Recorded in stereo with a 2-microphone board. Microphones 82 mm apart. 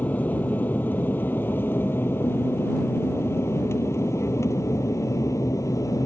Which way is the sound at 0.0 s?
20° left (ahead or behind).